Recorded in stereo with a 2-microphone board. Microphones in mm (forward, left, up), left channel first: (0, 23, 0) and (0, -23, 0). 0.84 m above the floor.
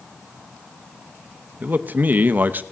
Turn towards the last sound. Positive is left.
turn(degrees=-40)  # may be behind; listen again after turning